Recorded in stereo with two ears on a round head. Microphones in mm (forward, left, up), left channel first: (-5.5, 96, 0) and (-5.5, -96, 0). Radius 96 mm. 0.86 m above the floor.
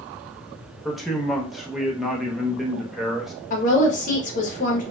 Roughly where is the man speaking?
Centre.